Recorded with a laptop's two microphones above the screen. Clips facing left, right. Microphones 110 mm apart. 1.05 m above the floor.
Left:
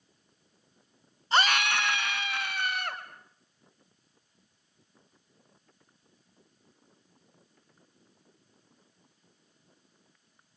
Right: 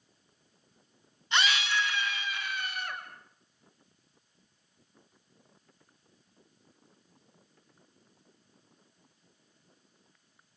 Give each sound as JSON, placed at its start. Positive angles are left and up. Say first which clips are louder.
{"t": 1.3, "sound": "a scream", "louder": "left 3 dB", "side_deg": 35, "distance_m": 0.7}